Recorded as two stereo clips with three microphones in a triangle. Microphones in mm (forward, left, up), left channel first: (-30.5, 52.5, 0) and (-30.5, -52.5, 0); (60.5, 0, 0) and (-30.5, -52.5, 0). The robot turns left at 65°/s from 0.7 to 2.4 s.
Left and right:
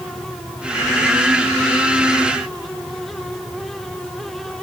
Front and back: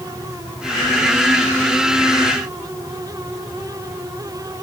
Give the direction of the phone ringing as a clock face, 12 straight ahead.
No phone ringing in this recording.